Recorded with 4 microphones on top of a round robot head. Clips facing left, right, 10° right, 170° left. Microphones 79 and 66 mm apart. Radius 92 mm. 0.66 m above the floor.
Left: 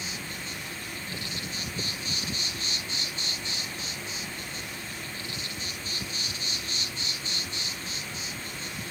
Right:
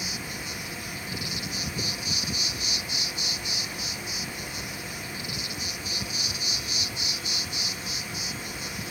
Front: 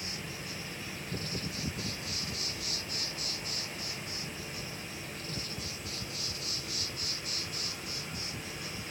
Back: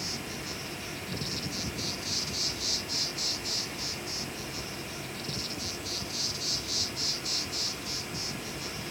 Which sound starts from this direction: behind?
An insect, at 0.0 s.